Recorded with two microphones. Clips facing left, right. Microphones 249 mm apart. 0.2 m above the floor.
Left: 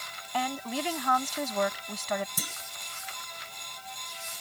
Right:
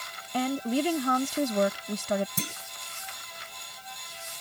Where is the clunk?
25° right (ahead or behind).